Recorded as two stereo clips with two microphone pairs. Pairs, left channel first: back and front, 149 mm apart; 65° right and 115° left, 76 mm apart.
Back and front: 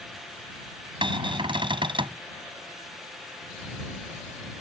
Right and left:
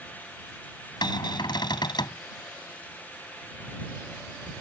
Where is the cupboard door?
55° right.